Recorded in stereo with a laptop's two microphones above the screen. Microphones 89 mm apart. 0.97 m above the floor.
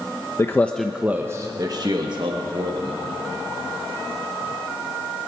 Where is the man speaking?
30° left (ahead or behind), 0.7 m; by 3.0 s 65° right (ahead or behind), 1.9 m.